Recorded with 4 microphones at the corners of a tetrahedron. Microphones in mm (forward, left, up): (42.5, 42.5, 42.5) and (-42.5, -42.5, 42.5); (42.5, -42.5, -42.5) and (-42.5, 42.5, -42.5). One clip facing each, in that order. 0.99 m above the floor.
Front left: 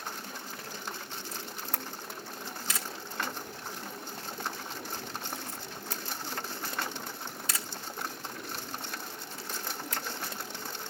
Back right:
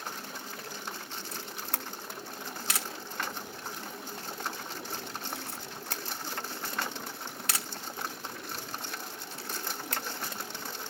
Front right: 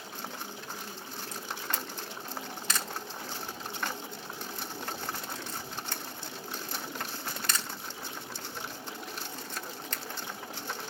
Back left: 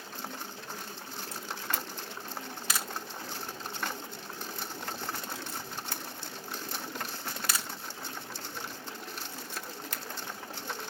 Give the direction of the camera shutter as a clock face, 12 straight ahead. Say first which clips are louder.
Even, even; 5 o'clock.